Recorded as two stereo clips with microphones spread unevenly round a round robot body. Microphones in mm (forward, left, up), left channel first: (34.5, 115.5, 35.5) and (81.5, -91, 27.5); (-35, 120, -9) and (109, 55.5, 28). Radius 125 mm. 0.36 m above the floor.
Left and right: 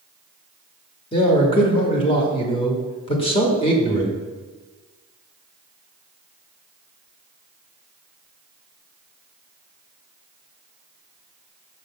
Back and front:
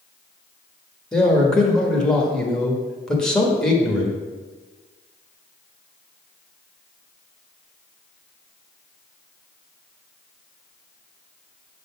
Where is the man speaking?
115° left, 1.1 m.